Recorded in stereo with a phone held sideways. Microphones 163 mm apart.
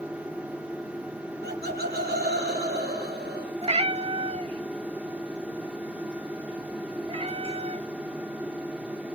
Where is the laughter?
85° right, 3 m.